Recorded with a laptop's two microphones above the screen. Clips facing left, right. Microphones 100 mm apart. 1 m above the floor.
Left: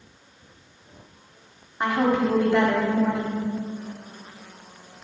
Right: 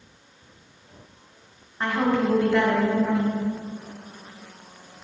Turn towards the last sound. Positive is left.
turn(degrees=15)  # may be behind; listen again after turning